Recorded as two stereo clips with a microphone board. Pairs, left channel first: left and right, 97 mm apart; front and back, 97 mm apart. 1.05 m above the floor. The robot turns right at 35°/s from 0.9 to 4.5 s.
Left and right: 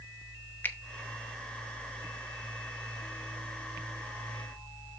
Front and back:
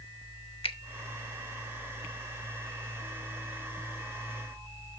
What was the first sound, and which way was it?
A finger snap, 20° left.